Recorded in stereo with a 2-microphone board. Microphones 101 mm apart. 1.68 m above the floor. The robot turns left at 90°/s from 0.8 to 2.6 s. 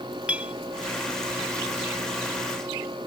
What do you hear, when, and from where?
0.3 s a clink: 15° right (ahead or behind)